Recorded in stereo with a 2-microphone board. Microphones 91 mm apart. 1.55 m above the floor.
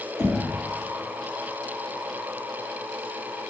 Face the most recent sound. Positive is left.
turn(degrees=-5)  # may be behind; listen again after turning